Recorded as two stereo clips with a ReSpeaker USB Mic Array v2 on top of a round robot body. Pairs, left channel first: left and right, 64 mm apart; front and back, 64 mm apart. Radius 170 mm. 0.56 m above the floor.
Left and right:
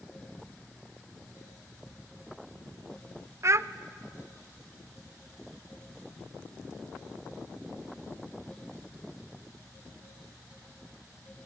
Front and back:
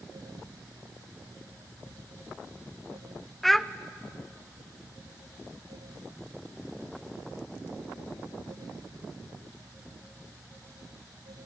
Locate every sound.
3.4 s a child speaking: 90° right, 0.8 m